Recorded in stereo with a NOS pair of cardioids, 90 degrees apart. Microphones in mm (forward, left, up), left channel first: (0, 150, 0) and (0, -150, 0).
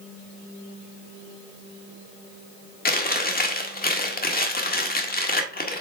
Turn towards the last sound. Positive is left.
turn(degrees=30)